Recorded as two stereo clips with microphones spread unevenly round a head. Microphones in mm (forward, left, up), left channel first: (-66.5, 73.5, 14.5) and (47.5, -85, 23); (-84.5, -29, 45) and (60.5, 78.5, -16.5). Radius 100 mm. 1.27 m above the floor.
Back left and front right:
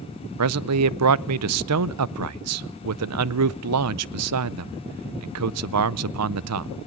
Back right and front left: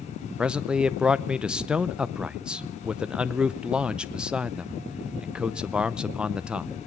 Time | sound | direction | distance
0.4 | a man speaking | 50° right | 0.6 m